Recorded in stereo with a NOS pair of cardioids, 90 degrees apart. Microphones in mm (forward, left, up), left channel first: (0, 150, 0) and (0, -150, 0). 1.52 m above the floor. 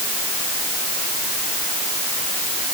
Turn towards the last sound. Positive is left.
No sound to turn to.